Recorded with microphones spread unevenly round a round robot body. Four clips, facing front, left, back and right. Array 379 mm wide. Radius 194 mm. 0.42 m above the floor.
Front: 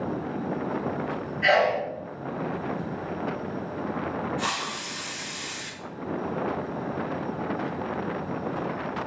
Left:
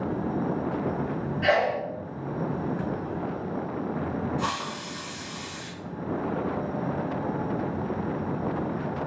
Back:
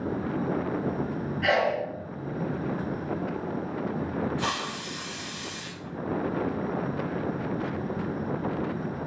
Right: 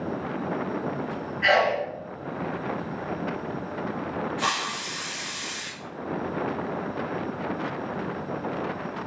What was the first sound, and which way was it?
A sneeze, 120° left.